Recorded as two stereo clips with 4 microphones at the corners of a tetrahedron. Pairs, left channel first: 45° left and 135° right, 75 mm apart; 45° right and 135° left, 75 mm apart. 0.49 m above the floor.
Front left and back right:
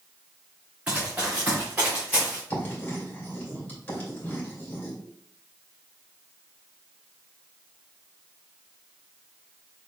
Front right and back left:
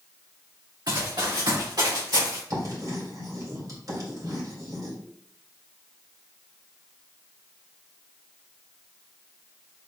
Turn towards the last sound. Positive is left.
turn(degrees=110)